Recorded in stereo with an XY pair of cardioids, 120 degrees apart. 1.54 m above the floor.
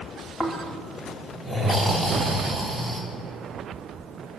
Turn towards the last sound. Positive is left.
turn(degrees=10)